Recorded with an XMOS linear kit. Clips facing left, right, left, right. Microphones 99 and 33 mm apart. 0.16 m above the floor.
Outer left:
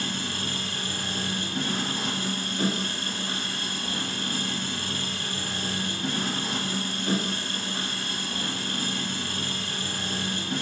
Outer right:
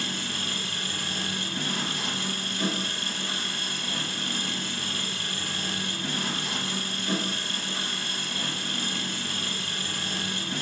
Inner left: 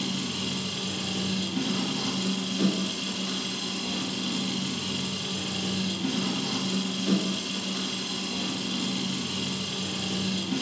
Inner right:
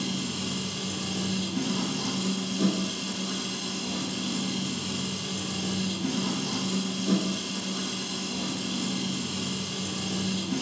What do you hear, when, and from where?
0.0 s an engine running: 45° left (ahead or behind), 2.5 m